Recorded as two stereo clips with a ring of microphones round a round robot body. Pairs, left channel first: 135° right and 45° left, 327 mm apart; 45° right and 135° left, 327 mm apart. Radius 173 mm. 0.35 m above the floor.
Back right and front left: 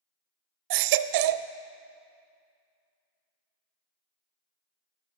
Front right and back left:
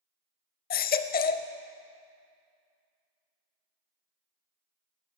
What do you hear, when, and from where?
0.7 s a baby crying: 20° left, 0.5 m